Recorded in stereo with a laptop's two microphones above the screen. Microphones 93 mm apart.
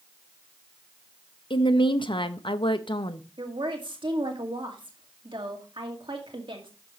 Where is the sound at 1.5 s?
60° left (ahead or behind), 0.7 m.